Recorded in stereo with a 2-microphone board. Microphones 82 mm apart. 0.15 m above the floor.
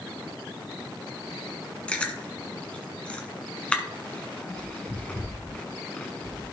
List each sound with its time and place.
1.9 s chewing: 15° left (ahead or behind), 1.6 m